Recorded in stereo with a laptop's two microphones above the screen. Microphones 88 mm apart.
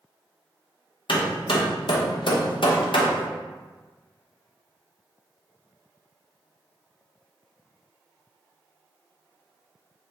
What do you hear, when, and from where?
1.1 s hammering: 65° left (ahead or behind), 0.7 m